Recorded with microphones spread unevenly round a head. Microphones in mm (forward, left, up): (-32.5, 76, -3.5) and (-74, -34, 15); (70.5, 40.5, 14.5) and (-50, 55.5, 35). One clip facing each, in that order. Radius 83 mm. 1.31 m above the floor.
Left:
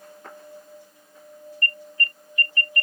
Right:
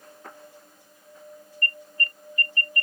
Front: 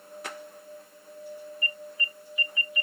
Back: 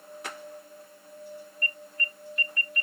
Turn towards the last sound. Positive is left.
turn(degrees=80)